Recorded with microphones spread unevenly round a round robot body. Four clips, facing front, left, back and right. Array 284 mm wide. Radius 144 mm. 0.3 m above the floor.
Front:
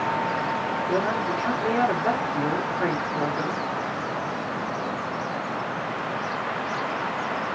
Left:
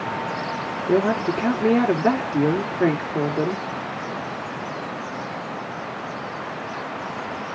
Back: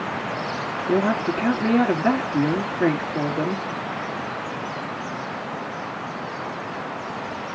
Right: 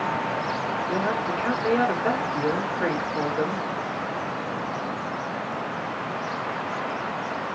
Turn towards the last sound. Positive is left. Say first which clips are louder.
# left 9 dB, back 6 dB
turn(degrees=125)